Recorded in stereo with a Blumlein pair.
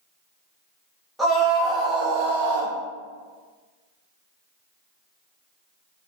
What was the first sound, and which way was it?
A scream, straight ahead.